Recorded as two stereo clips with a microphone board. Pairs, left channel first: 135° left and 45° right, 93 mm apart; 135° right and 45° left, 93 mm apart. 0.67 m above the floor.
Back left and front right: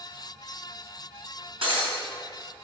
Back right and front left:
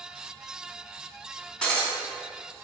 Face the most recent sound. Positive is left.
turn(degrees=-55)